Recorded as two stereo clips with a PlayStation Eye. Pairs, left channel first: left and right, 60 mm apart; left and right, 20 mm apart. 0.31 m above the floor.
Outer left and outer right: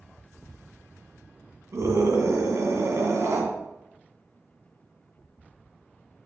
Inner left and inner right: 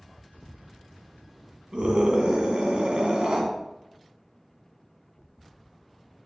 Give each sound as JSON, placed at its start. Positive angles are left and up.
{"t": 1.7, "sound": "a scream", "side_deg": -55, "distance_m": 2.5}